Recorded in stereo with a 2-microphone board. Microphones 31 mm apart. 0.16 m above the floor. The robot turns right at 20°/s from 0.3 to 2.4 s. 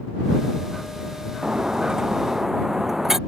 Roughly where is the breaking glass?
Right.